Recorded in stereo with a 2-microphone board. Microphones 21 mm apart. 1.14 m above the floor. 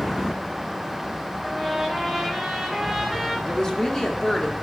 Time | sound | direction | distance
1.4 | a trumpet | 5° left (ahead or behind) | 4 m
3.5 | a woman speaking | 30° left (ahead or behind) | 2.5 m